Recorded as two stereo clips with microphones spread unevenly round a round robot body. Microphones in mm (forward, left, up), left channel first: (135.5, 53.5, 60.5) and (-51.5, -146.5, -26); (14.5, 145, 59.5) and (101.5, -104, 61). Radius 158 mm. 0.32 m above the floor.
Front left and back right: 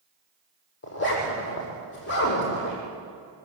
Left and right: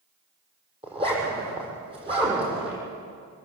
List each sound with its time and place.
0.8 s a zipper: straight ahead, 8 m